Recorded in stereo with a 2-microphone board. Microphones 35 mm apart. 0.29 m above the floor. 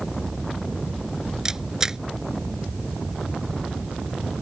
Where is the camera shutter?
15° right (ahead or behind).